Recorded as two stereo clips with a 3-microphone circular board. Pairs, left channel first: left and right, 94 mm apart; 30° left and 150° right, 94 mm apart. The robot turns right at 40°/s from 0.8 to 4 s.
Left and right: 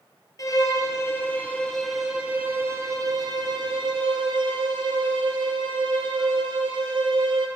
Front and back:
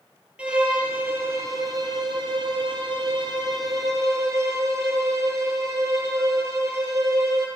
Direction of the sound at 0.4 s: 135° left.